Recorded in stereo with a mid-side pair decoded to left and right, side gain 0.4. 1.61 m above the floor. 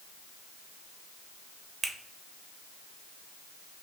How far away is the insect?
I don't hear an insect.